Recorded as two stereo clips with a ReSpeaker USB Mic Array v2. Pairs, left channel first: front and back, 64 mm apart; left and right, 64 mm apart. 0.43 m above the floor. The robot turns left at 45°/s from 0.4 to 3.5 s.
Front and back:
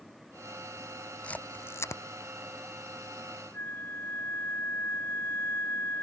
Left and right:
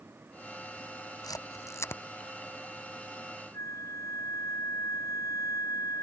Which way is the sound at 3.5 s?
55° left.